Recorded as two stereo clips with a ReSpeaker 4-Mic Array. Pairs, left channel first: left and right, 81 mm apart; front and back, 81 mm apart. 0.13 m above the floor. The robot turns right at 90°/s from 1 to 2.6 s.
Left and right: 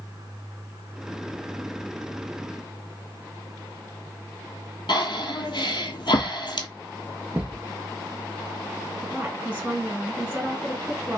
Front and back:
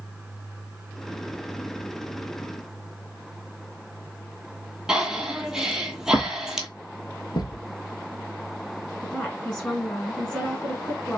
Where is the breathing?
95° left, 0.8 m.